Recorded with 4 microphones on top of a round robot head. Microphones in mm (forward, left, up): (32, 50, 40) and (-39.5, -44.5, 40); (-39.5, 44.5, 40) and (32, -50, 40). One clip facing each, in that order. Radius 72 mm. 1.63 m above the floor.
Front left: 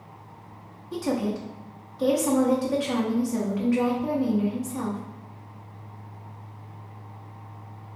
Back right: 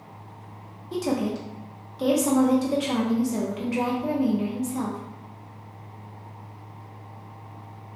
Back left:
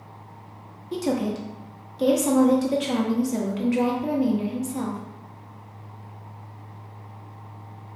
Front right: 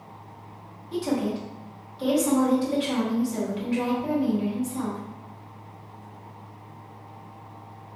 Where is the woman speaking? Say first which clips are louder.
Back right 1 dB, back left 1 dB; 165° left, 0.7 m.